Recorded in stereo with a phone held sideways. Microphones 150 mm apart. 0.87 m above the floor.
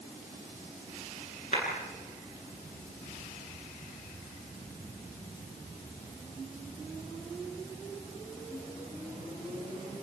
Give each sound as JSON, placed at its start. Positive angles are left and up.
{"t": 1.5, "sound": "a clap", "side_deg": 50, "distance_m": 10.0}